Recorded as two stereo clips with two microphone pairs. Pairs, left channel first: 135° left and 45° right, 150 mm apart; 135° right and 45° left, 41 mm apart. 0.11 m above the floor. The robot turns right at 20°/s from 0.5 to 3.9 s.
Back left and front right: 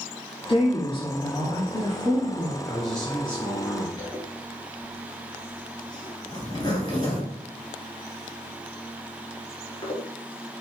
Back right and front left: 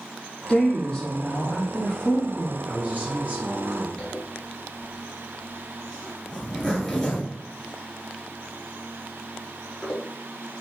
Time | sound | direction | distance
0.5 | a woman speaking | 150° left | 1.6 m
2.7 | a man speaking | 45° left | 2 m
4.0 | a zipper | 155° left | 1.4 m